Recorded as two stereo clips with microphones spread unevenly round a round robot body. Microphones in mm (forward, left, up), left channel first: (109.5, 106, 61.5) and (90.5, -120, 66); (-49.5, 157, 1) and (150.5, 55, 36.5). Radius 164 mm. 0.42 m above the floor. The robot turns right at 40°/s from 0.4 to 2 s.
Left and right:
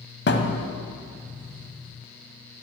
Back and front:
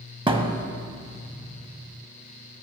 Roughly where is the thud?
Ahead left.